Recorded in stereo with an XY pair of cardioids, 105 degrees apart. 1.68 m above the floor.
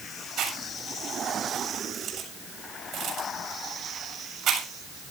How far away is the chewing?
About 7 m.